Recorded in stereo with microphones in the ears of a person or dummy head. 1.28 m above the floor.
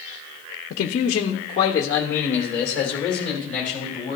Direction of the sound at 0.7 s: 50° left (ahead or behind).